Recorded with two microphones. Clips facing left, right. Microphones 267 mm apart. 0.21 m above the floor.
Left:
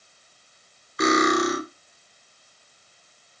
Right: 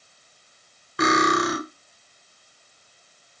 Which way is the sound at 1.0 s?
55° right (ahead or behind).